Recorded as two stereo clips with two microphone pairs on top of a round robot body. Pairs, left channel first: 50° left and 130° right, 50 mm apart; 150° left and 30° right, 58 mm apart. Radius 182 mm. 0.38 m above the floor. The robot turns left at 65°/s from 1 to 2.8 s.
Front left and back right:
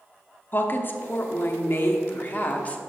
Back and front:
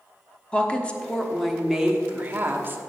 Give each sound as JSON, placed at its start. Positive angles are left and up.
{"t": 0.5, "sound": "a woman speaking", "azimuth_deg": 90, "distance_m": 1.0}